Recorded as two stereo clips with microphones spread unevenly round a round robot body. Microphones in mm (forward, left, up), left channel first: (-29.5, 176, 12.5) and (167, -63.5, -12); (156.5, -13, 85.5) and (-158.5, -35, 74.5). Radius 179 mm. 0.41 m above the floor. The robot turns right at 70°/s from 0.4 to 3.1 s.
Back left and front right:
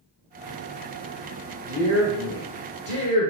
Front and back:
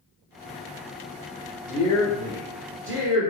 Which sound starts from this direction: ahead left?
A woman speaking, at 1.7 s.